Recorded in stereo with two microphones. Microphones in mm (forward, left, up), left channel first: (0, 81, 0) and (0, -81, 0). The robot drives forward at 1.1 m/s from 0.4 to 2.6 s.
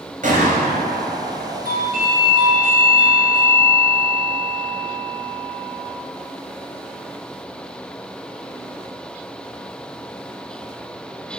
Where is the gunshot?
55° right (ahead or behind), 2.5 m; by 1.6 s 80° right, 2 m.